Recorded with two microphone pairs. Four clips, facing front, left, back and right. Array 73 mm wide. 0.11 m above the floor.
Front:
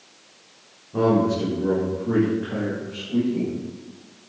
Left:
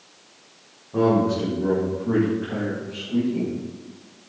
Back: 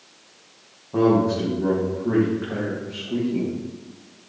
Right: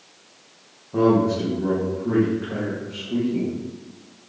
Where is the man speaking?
Straight behind, 6 m; by 3.5 s 160° right, 6 m.